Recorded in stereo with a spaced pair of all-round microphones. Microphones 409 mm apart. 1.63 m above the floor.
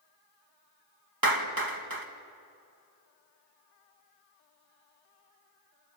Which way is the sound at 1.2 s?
55° right (ahead or behind).